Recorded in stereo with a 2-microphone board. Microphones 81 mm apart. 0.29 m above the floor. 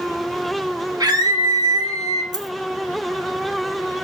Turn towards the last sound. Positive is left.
turn(degrees=-55)  # may be behind; listen again after turning